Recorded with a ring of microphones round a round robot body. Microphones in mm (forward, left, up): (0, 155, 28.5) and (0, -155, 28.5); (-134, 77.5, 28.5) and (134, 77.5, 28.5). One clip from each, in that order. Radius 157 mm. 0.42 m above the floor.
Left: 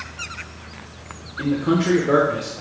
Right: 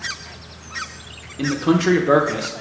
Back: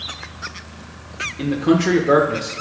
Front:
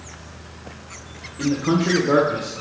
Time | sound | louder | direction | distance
1.4 | a man speaking | right 2 dB, back 3 dB | 130° right | 0.8 m